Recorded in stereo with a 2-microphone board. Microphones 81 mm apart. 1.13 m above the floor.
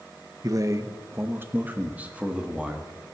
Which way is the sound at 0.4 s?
50° right (ahead or behind).